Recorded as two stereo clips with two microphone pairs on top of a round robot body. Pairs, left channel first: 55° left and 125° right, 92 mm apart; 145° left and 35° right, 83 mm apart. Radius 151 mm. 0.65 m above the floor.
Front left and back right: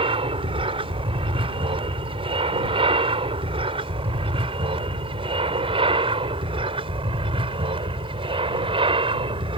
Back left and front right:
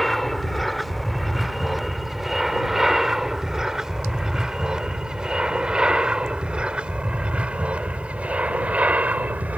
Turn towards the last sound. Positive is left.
turn(degrees=-105)